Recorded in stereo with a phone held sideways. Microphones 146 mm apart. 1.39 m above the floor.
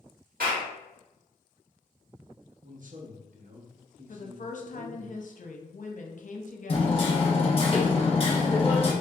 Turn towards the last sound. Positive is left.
turn(degrees=40)  # may be behind; listen again after turning